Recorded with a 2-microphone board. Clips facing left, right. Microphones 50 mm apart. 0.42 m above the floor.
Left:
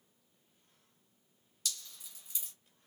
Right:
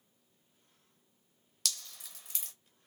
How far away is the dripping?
About 0.6 m.